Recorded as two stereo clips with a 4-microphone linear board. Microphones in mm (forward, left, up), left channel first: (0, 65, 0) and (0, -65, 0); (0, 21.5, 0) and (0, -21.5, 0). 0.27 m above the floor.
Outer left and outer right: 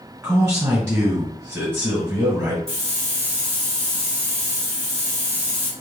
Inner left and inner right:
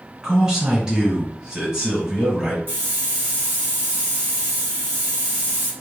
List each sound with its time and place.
0.2 s a man speaking: 25° right (ahead or behind), 1.8 m
2.7 s a hiss: 45° right (ahead or behind), 1.9 m